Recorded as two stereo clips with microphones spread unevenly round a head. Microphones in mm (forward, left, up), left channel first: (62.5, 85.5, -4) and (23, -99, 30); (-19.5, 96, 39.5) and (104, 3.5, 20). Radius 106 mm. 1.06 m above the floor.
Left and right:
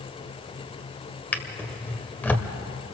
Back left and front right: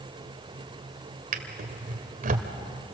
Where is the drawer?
10° right, 1.7 m.